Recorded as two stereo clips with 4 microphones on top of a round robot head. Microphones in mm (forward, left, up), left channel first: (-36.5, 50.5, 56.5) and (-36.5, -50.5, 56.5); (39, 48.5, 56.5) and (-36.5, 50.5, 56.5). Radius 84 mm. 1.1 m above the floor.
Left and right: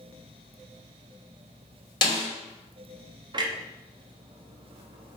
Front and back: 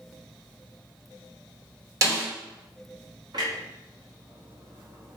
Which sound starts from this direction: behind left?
A snare drum, at 2.0 s.